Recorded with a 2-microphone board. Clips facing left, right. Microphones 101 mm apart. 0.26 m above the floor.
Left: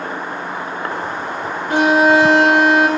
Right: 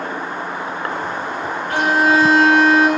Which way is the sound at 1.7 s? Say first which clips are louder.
Left 3 dB; 25° left (ahead or behind).